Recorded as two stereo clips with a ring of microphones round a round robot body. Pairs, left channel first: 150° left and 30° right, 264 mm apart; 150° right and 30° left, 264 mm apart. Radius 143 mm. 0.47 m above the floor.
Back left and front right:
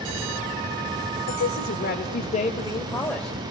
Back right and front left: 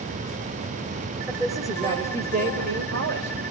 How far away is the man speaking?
About 2.5 m.